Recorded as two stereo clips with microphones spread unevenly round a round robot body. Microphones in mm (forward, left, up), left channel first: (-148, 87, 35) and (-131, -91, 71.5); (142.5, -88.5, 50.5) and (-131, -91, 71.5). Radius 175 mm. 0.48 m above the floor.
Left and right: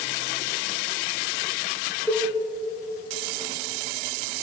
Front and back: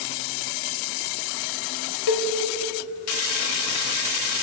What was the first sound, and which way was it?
A cowbell, 10° left.